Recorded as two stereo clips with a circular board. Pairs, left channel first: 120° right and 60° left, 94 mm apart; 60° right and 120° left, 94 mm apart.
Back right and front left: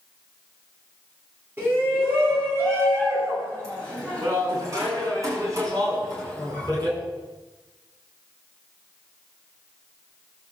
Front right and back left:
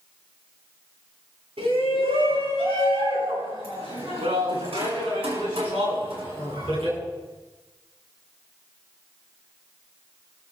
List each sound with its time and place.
1.6 s a shout: 125° left, 9 m; by 7.0 s 110° left, 12 m